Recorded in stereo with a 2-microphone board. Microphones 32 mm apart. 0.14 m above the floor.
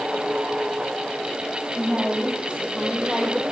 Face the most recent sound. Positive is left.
turn(degrees=-25)  # may be behind; listen again after turning